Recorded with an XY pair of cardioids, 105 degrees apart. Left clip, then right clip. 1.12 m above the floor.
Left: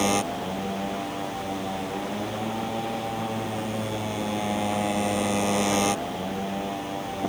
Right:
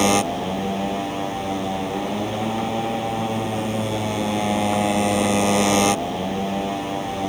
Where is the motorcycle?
35° right.